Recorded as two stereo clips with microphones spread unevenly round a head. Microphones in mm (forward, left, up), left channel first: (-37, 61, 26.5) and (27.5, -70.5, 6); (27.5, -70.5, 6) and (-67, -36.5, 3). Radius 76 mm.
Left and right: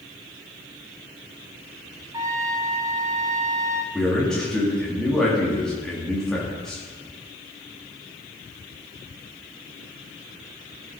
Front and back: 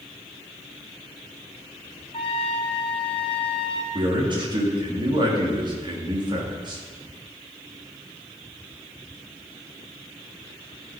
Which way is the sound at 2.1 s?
5° left.